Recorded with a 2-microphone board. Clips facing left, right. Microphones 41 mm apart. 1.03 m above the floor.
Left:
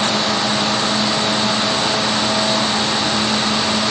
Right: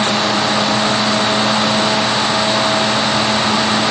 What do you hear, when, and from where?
Only background noise.